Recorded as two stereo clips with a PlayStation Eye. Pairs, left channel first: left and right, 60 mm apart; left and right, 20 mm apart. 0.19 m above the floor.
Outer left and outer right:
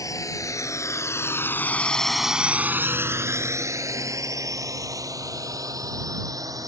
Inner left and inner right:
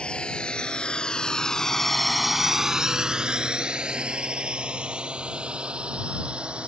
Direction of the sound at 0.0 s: 70° left (ahead or behind).